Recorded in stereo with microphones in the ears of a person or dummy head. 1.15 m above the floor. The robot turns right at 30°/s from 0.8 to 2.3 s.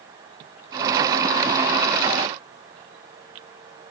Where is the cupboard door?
No cupboard door in this recording.